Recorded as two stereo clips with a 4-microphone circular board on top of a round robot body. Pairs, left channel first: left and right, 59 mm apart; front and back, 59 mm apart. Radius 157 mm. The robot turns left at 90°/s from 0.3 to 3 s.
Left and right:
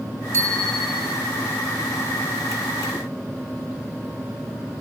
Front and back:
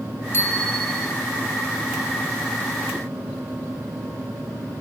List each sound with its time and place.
0.3 s a bicycle bell: 45° right, 5 m; by 1.1 s 120° right, 5 m